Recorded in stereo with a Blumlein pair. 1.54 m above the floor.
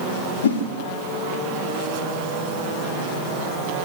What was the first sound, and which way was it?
A whoosh, 65° left.